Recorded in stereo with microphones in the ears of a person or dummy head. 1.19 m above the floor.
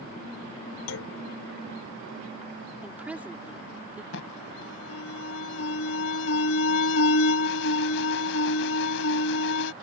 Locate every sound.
0.9 s a clunk: 85° left
2.8 s a woman speaking: 10° right (ahead or behind)
4.1 s an alarm: 70° left (ahead or behind)